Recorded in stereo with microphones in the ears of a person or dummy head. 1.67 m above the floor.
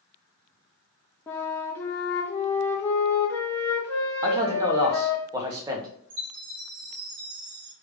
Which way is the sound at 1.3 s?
20° left (ahead or behind).